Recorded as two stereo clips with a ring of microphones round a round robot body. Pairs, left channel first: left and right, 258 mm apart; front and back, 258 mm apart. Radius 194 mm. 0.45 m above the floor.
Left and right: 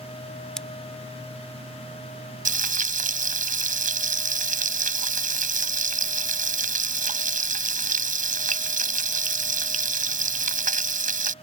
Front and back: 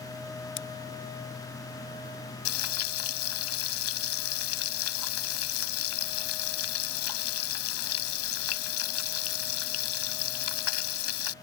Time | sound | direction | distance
0.6 | scissors | 5° left | ?
2.5 | frying | 35° right | ?